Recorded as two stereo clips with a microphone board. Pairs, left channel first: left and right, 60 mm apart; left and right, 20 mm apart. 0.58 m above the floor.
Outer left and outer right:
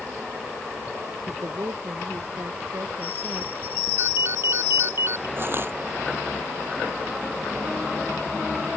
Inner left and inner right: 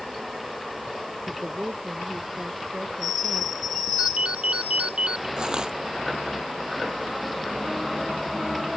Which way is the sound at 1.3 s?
60° right (ahead or behind).